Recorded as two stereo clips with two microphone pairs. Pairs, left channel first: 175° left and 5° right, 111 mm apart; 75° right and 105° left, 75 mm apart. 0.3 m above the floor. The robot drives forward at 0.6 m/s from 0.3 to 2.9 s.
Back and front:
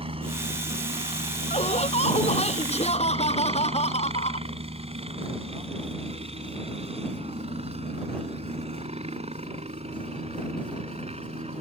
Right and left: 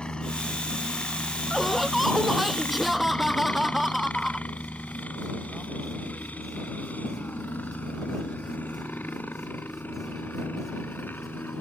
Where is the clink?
I don't hear a clink.